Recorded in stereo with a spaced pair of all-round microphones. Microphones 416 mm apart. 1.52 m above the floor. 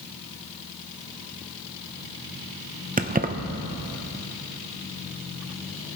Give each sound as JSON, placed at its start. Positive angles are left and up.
{"t": 3.0, "sound": "keys jangling", "side_deg": -20, "distance_m": 0.6}